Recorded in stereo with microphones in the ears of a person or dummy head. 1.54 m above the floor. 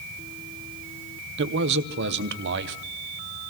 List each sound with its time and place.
1.4 s a man speaking: 60° right (ahead or behind), 0.9 m